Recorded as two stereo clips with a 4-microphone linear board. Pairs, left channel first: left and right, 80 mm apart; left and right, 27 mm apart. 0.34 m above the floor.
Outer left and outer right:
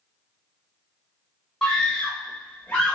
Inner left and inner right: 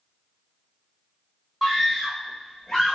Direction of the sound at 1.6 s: 5° left (ahead or behind).